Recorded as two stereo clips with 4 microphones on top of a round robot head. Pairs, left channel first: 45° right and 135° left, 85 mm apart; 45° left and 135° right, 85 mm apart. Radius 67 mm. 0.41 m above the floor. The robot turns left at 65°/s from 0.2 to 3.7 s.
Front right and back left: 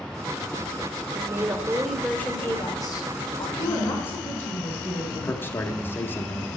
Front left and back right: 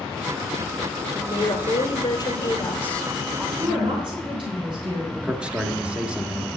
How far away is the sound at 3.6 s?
About 4.5 m.